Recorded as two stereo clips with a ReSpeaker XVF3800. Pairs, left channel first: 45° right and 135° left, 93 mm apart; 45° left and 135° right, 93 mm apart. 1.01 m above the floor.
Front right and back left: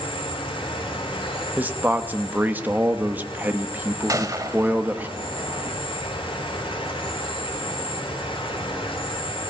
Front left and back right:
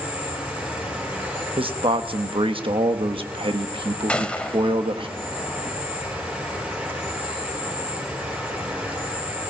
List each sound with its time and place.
0.0 s an insect: 65° right, 5 m
1.6 s a man speaking: 155° right, 1.0 m
4.1 s a gunshot: 115° left, 1.0 m